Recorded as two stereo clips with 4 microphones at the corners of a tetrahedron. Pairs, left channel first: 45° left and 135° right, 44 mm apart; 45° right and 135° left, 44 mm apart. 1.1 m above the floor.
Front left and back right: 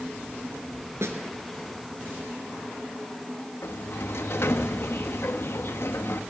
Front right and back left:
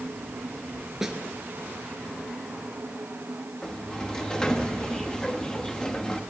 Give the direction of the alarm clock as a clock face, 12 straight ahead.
I don't hear an alarm clock.